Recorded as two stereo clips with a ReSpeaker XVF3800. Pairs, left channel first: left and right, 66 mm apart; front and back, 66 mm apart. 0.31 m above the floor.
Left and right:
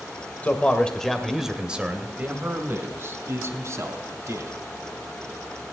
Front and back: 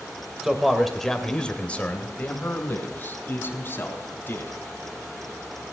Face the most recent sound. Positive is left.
turn(degrees=-55)